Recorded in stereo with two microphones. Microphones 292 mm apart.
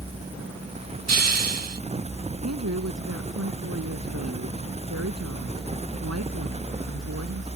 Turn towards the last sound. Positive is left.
turn(degrees=-65)  # may be behind; listen again after turning